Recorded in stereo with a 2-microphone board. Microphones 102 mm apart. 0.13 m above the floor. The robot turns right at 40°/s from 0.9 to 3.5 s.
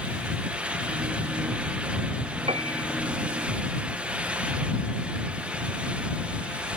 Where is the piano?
70° right (ahead or behind); by 2.9 s 80° right.